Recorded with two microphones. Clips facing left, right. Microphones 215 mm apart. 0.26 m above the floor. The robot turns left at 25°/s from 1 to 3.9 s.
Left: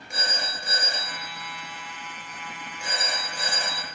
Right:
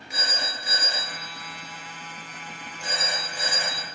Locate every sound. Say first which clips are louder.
0.1 s a phone ringing: even; 50° left, 2.5 m; by 3.9 s 20° right, 2.5 m